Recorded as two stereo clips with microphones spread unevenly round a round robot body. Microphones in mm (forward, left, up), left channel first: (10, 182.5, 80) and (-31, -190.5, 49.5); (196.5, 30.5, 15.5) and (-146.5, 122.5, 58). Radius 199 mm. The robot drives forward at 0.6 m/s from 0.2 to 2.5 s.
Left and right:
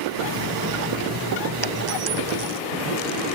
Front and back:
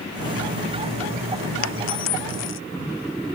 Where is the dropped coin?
65° right; by 2.6 s 70° right.